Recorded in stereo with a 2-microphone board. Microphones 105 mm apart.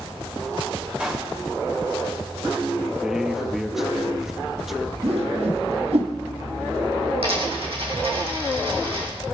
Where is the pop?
15° right (ahead or behind), 4 m.